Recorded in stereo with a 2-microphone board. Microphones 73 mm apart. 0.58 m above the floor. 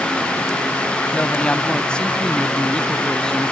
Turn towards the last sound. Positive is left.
turn(degrees=10)  # may be behind; listen again after turning